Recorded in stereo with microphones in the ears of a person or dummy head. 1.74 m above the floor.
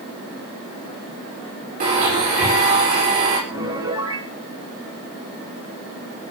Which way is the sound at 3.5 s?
20° right (ahead or behind).